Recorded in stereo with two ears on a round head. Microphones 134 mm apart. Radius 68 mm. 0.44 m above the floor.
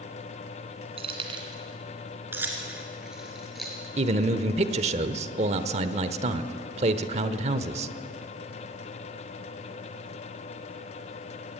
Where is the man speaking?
45° right (ahead or behind), 1.0 m.